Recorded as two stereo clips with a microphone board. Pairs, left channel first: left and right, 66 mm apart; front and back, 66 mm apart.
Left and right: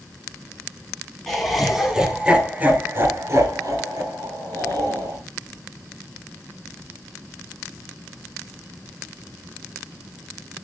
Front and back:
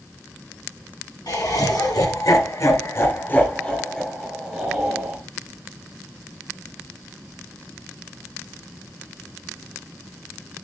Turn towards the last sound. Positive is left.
turn(degrees=-105)